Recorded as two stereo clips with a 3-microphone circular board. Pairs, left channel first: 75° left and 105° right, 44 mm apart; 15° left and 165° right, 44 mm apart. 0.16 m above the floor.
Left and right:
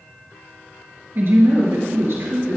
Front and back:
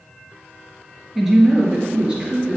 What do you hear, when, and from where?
1.1 s a woman speaking: 80° right, 2.5 m; by 2.6 s 100° right, 2.5 m